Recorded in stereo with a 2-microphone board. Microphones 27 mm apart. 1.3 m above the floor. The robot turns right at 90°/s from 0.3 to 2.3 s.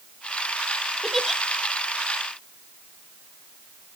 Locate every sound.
1.0 s a giggle: 25° left (ahead or behind), 1.0 m; by 1.4 s 5° right (ahead or behind), 1.0 m